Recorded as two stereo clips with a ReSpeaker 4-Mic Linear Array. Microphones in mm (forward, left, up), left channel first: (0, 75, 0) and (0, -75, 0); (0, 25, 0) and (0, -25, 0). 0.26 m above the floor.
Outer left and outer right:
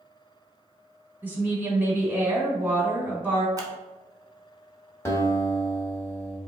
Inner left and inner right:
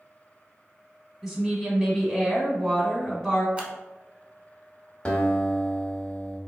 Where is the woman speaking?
15° right (ahead or behind), 1.6 m.